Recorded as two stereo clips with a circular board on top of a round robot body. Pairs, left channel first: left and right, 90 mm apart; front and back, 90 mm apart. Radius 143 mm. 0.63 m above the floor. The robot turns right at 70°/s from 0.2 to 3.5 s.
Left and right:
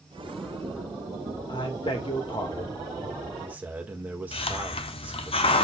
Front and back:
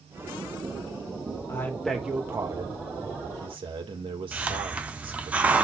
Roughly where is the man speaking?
Ahead left.